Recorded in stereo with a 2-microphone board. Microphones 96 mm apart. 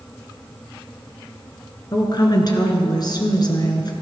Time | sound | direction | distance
1.9 | a woman speaking | 45° left (ahead or behind) | 1.6 m